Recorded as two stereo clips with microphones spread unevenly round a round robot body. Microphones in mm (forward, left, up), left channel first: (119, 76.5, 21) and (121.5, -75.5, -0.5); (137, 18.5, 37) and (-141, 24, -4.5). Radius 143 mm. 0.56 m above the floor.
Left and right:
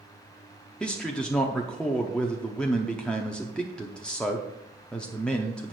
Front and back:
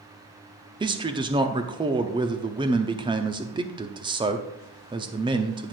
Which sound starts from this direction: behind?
A man speaking, at 0.8 s.